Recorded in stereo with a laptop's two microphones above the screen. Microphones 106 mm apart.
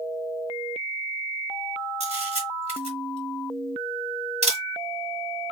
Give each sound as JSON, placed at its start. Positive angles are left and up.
{"t": 2.0, "sound": "a camera shutter", "side_deg": -75, "distance_m": 1.9}